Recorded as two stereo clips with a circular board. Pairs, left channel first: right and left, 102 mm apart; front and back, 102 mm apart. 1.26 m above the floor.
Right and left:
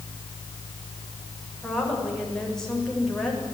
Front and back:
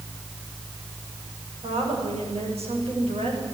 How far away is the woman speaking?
About 7 m.